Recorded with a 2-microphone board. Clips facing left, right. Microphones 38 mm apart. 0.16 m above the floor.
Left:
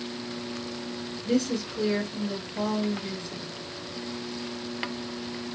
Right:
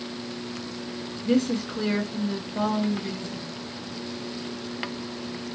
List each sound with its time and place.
1.2 s a woman speaking: 50° right (ahead or behind), 2.5 m